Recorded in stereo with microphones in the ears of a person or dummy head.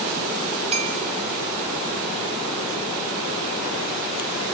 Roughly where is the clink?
Right.